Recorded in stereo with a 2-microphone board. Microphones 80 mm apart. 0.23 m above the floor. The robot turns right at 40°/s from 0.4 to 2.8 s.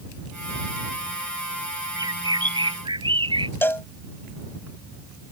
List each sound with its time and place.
2.0 s a bird: 135° right; by 3.5 s 100° right
3.6 s a cowbell: 30° left (ahead or behind)